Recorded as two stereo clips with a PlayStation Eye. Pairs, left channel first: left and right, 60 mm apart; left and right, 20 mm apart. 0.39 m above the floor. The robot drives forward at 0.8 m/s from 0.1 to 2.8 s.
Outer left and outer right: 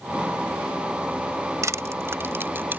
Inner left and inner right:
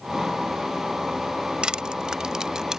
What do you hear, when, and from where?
1.6 s crushing: 55° right (ahead or behind); by 2.8 s 35° right (ahead or behind)